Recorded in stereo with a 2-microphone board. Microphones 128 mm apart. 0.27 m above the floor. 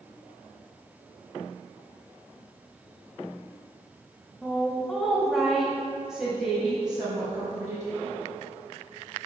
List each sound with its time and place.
4.4 s a woman speaking: centre (ahead or behind), 1.2 m; by 7.9 s 5° right (ahead or behind), 2.5 m